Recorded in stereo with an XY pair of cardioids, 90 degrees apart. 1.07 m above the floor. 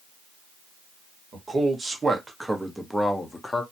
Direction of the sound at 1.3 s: 45° right.